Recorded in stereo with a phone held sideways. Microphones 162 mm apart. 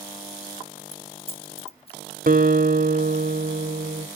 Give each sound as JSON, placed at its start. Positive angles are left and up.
{"t": 0.9, "sound": "keys jangling", "side_deg": 40, "distance_m": 1.1}
{"t": 2.3, "sound": "a guitar", "side_deg": -60, "distance_m": 1.4}